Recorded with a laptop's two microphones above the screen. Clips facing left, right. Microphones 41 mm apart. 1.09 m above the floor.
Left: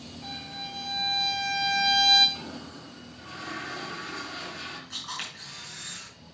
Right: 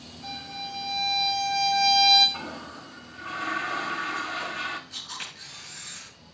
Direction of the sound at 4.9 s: 85° left.